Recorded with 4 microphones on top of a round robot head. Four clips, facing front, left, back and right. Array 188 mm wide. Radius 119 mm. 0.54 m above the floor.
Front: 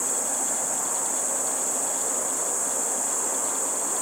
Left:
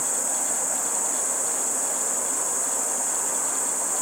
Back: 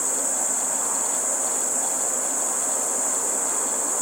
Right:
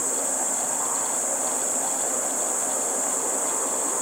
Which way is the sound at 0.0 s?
145° left.